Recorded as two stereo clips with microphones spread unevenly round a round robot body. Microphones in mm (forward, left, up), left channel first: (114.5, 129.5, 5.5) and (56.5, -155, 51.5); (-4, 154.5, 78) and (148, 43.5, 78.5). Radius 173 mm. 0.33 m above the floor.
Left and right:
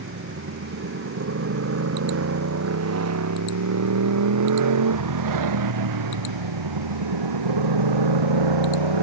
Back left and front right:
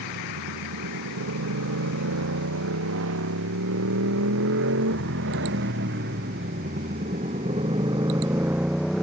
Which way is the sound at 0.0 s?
50° right.